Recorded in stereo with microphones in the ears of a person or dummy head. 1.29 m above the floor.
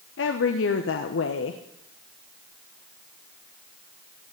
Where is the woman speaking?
65° left (ahead or behind), 1.0 m.